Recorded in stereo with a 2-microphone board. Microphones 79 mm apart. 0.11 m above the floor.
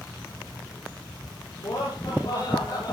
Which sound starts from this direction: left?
Laughter, at 1.6 s.